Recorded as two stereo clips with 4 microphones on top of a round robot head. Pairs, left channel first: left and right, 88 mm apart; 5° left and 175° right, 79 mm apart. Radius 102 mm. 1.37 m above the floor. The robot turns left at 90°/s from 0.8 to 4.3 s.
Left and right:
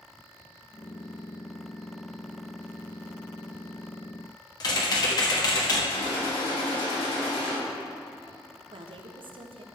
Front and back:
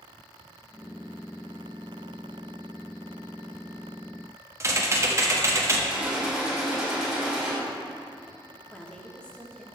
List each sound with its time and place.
4.6 s typing on a keyboard: 130° left, 1.5 m
5.9 s a gunshot: 105° left, 3 m
8.7 s a woman speaking: 75° right, 1.0 m